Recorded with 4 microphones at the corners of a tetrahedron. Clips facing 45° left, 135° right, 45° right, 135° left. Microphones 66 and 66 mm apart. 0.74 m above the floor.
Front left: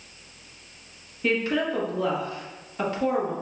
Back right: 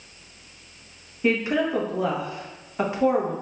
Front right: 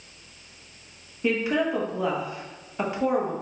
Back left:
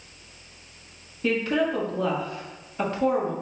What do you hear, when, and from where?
1.2 s a woman speaking: 105° right, 0.9 m